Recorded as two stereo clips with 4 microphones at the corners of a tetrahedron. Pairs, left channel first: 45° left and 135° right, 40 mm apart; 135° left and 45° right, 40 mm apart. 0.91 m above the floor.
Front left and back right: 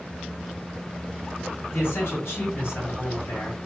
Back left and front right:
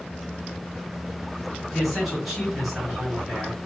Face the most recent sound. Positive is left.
turn(degrees=45)